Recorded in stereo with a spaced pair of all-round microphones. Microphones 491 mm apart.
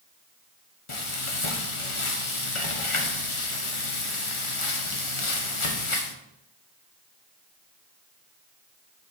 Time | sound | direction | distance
0.9 | frying | 75° left (ahead or behind) | 1.1 m